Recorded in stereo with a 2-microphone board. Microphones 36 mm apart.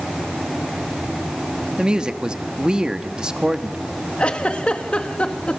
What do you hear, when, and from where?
1.8 s a woman speaking: 25° right (ahead or behind), 1.1 m
4.2 s a giggle: 35° left (ahead or behind), 1.5 m